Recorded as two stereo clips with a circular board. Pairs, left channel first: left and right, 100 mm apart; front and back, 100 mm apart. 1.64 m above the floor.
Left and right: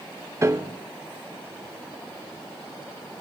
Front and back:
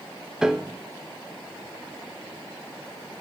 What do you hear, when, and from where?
0.4 s a piano: 105° right, 0.9 m